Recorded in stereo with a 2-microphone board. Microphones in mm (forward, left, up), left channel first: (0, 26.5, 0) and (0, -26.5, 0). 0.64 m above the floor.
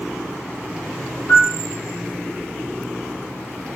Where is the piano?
60° left (ahead or behind), 0.7 m.